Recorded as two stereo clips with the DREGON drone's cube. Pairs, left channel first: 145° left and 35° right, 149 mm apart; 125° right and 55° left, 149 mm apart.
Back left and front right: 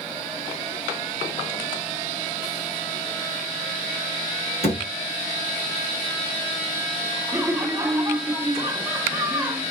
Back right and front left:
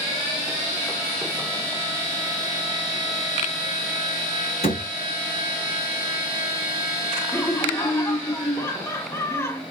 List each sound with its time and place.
4.6 s a thud: 170° right, 1.8 m
7.3 s laughter: 85° right, 0.6 m